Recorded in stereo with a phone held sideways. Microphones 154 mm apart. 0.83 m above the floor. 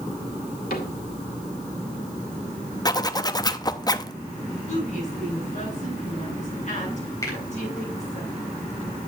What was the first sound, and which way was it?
A cupboard door, 80° left.